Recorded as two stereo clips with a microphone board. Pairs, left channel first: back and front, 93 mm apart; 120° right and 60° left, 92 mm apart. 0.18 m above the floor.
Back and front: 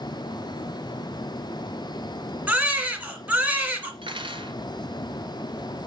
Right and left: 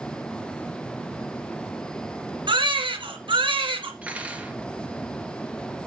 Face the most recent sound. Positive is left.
turn(degrees=-15)